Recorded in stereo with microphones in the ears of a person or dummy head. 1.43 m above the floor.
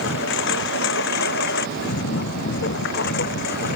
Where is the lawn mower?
60° left (ahead or behind); by 3.8 s 55° left (ahead or behind).